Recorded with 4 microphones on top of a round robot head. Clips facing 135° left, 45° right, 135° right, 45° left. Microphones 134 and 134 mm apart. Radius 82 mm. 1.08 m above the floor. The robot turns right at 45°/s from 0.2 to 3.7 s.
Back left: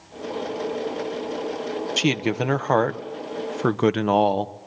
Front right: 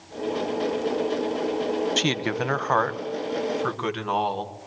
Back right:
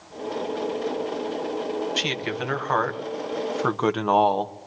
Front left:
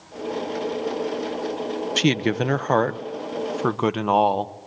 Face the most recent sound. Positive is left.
turn(degrees=130)